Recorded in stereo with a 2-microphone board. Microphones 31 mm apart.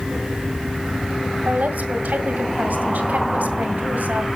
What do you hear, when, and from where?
1.4 s a woman speaking: 65° right (ahead or behind), 1.8 m